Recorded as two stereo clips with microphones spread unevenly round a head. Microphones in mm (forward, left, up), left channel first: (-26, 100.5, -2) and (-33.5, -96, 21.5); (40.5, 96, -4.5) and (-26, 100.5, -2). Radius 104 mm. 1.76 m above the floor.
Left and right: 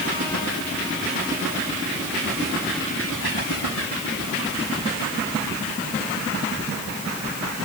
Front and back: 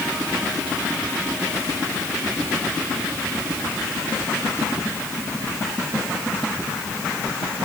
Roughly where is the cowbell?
No cowbell in this recording.